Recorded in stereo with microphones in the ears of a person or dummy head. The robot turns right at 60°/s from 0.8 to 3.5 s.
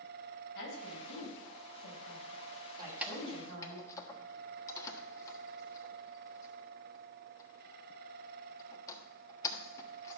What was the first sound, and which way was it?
A woman speaking, 65° left (ahead or behind).